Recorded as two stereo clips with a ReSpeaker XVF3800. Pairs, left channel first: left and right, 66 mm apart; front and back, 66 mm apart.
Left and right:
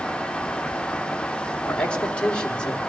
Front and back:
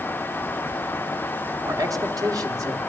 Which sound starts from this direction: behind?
A man speaking, at 1.7 s.